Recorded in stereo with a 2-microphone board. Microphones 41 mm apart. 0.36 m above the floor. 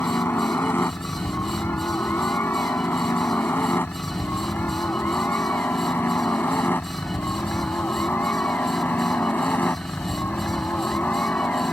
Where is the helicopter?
60° left (ahead or behind); by 11.7 s 45° left (ahead or behind).